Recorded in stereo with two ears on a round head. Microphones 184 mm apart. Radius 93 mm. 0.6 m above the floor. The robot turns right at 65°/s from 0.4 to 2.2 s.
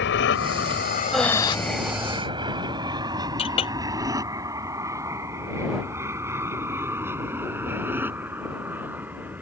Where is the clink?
25° left (ahead or behind).